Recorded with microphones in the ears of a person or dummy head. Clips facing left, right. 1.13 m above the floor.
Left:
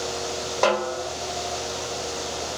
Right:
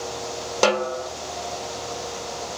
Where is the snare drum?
45° right (ahead or behind), 1.0 m.